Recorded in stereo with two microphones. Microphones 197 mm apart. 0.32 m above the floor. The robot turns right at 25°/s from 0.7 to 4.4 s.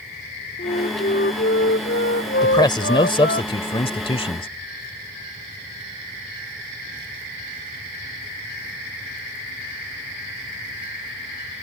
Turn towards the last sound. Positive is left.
turn(degrees=30)  # may be behind; listen again after turning